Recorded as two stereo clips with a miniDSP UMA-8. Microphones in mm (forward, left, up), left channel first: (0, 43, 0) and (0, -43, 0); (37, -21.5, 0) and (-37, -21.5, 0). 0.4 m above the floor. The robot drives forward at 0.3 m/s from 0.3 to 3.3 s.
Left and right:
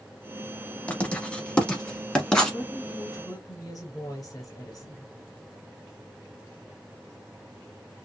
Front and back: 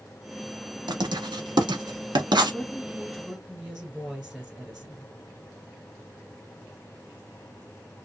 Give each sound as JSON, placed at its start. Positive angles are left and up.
{"t": 0.9, "sound": "writing", "azimuth_deg": 165, "distance_m": 0.6}
{"t": 2.5, "sound": "a woman speaking", "azimuth_deg": 95, "distance_m": 1.6}